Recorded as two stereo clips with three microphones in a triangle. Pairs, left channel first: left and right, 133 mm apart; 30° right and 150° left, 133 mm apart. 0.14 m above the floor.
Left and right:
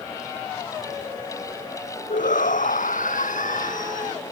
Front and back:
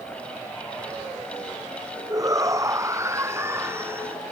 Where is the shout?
85° left; by 4.2 s 75° left.